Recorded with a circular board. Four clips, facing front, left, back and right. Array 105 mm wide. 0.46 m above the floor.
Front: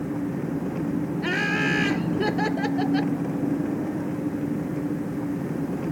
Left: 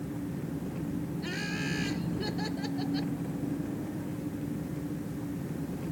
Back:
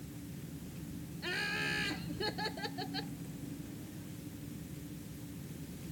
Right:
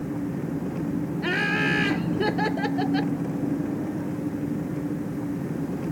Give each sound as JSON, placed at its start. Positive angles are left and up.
{"t": 0.0, "sound": "an engine running", "azimuth_deg": -25}
{"t": 1.2, "sound": "laughter", "azimuth_deg": -50}